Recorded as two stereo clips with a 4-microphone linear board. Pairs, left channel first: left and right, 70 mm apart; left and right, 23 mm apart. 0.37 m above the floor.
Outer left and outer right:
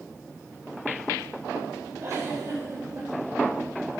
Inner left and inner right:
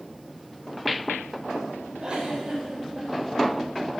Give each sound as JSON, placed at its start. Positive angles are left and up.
{"t": 2.0, "sound": "a giggle", "side_deg": -45, "distance_m": 4.0}